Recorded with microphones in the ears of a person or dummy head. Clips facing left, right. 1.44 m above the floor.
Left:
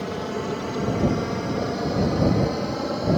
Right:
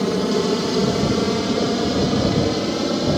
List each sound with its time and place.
0.0 s an aircraft: 55° right (ahead or behind); by 3.2 s 40° right (ahead or behind)